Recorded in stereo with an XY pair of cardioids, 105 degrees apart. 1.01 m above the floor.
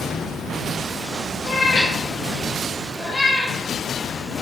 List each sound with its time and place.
1.5 s a cat meowing: 40° left, 0.6 m